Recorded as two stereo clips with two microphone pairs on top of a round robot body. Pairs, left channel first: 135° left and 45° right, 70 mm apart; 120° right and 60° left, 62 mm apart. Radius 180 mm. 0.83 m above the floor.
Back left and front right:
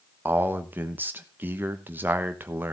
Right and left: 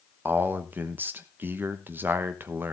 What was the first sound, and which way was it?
A man speaking, 5° left.